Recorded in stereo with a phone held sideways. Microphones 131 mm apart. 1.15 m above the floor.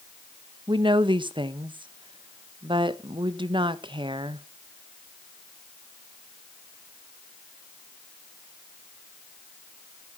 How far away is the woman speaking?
About 0.8 m.